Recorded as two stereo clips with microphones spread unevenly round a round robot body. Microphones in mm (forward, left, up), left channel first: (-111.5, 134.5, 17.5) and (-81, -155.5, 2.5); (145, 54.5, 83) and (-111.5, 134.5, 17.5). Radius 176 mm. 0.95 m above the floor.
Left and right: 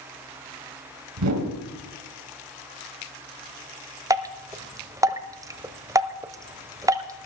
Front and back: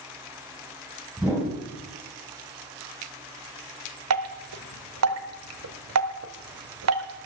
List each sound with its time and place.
1.2 s a whoosh: 110° right, 3 m
4.1 s dripping: 160° right, 0.8 m